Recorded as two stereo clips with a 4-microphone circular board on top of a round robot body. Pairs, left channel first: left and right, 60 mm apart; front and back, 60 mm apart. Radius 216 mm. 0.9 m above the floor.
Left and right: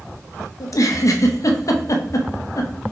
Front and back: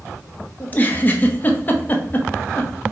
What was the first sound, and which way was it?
A giggle, 60° left.